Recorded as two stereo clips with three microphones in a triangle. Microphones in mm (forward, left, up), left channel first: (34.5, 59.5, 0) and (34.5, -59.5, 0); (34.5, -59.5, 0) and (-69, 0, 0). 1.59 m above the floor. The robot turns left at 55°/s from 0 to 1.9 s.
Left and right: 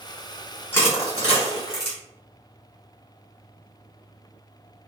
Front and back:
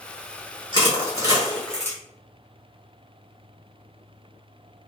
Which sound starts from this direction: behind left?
Crushing, at 0.7 s.